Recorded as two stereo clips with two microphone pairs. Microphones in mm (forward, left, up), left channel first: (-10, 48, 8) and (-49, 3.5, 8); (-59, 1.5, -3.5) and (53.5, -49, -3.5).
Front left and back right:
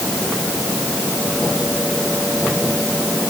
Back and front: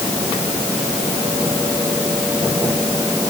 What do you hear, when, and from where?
Only background noise.